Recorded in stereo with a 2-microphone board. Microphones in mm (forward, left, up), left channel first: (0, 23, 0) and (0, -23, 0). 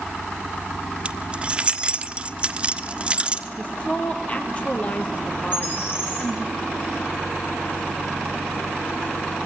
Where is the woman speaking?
30° left (ahead or behind), 3.5 m.